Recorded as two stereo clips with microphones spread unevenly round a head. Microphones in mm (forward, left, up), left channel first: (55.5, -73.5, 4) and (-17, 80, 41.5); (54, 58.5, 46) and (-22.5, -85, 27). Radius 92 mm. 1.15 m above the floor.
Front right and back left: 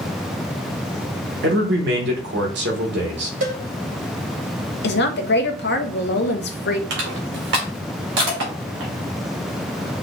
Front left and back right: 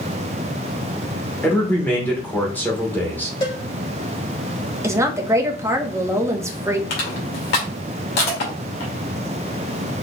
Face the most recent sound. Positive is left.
turn(degrees=95)